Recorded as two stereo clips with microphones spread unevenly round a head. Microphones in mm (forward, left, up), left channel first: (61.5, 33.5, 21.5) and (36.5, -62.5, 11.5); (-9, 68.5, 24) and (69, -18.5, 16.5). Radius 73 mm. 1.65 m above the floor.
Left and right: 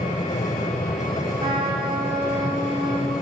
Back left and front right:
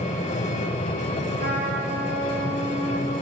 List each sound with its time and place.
0.0 s an engine running: 120° left, 9 m
1.4 s a trumpet: 70° right, 5 m